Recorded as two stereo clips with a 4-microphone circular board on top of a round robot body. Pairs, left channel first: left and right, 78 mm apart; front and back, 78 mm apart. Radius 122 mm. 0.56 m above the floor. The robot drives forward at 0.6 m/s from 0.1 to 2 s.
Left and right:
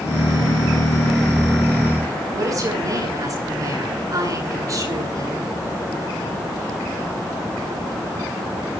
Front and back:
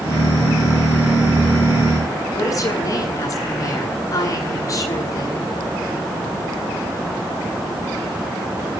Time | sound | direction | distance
2.3 | a woman speaking | 45° right | 9.5 m